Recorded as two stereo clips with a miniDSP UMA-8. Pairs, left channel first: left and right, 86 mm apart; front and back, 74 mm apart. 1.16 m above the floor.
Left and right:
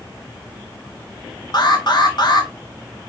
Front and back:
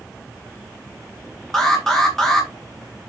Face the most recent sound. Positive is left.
turn(degrees=85)